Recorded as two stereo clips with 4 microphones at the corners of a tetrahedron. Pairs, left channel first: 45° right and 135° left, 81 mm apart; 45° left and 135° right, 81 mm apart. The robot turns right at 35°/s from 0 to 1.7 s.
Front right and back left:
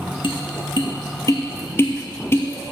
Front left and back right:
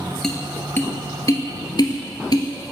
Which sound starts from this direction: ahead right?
Tapping, at 0.2 s.